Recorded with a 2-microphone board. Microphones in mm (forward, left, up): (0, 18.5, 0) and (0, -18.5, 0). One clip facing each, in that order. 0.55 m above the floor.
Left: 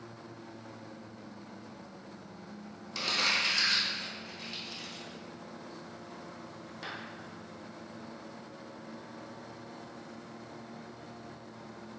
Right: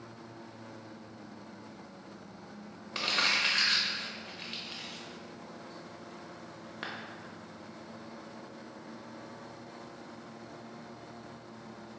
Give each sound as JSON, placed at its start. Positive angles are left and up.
{"t": 3.0, "sound": "crumpling", "side_deg": -35, "distance_m": 0.5}